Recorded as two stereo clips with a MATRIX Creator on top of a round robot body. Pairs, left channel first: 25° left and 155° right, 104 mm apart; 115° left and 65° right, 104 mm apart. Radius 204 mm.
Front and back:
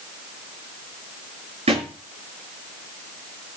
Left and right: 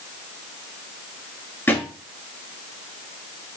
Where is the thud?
175° right, 6.5 m.